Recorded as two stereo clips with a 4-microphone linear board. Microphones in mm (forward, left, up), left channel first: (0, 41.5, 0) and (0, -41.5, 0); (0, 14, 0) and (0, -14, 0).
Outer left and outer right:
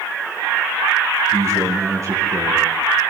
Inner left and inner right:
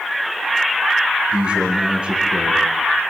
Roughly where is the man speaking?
Right.